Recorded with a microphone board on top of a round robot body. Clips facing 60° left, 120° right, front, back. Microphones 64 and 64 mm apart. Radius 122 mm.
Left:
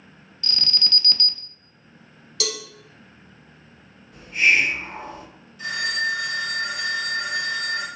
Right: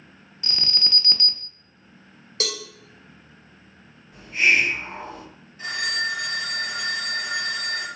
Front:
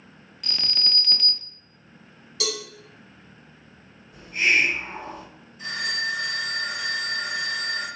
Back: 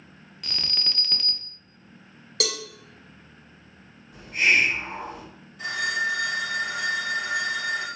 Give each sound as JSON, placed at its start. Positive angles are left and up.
{"t": 0.4, "sound": "an alarm", "azimuth_deg": -90, "distance_m": 0.6}
{"t": 2.4, "sound": "a cowbell", "azimuth_deg": -170, "distance_m": 1.2}
{"t": 4.1, "sound": "a hiss", "azimuth_deg": 180, "distance_m": 2.0}
{"t": 5.6, "sound": "a phone ringing", "azimuth_deg": 180, "distance_m": 1.9}